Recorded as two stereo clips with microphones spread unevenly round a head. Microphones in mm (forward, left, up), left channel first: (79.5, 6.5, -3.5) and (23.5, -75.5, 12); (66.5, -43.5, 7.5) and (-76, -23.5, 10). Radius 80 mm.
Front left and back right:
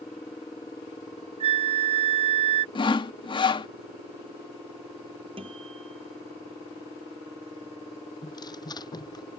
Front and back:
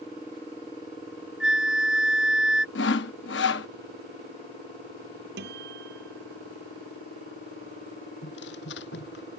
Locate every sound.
1.4 s a flute: 100° right
2.8 s sawing: 15° left
5.4 s a guitar: 175° left
8.2 s tearing paper: 10° left